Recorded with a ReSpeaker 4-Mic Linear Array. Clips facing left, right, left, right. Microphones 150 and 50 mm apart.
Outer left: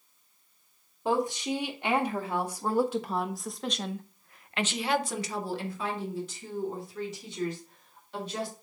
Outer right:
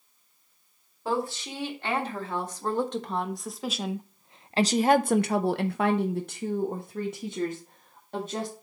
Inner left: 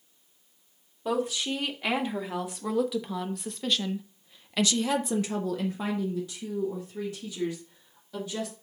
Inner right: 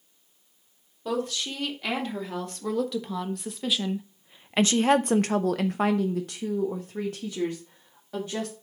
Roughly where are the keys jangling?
No keys jangling in this recording.